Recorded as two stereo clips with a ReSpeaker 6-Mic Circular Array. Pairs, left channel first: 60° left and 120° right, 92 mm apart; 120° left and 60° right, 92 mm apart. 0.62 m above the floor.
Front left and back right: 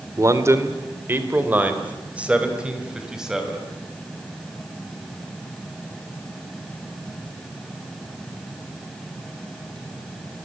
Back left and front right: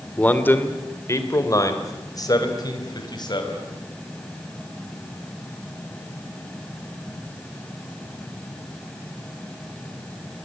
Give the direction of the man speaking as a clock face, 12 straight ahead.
6 o'clock.